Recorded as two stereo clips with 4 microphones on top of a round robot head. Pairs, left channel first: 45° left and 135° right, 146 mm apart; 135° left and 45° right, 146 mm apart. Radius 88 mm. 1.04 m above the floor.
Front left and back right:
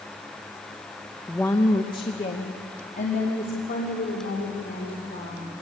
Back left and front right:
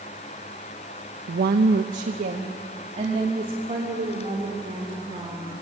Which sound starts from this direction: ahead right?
A woman speaking, at 1.3 s.